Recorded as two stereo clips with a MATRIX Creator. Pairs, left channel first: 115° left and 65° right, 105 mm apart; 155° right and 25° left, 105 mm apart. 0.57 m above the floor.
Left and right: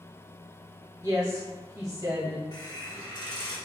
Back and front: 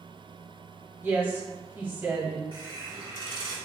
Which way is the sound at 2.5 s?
65° left.